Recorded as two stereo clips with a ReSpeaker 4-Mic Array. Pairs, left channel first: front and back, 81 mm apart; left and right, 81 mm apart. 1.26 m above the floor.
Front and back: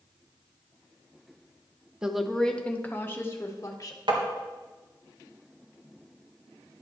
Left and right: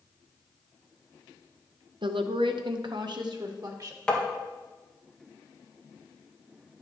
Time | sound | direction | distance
2.0 | a woman speaking | 100° right | 0.8 m
4.1 | tapping | 170° left | 1.8 m